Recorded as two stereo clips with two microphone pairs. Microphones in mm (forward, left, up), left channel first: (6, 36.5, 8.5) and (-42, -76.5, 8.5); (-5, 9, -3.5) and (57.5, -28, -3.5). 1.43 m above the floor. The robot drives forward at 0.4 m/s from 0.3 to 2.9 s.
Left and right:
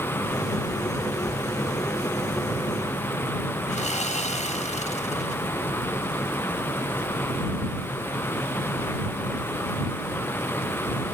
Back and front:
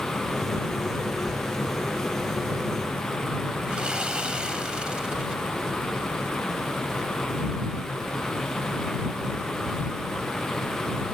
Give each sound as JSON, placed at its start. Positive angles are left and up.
{"t": 3.7, "sound": "sawing", "azimuth_deg": 45}